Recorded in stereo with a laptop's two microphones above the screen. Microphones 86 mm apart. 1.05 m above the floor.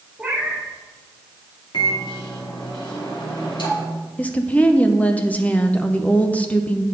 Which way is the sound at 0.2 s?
10° right (ahead or behind).